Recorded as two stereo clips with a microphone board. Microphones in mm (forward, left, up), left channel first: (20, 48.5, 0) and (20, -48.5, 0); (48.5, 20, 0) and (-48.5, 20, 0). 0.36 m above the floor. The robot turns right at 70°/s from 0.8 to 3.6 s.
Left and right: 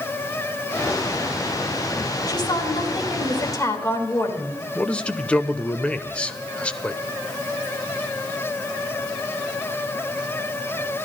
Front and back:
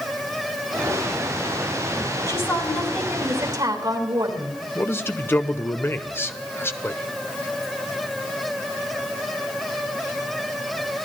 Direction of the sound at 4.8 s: 25° left.